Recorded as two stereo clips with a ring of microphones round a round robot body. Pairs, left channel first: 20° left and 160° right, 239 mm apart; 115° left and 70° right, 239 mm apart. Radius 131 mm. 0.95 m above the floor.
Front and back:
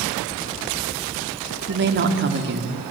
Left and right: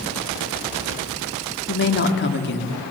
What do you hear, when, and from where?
1.7 s a woman speaking: 155° left, 2.5 m